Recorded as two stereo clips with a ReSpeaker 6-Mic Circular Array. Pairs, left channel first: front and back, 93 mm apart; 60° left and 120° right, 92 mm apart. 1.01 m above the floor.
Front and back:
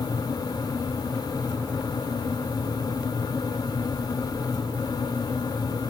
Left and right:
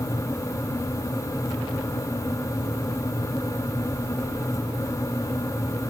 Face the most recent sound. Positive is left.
No sound to turn to.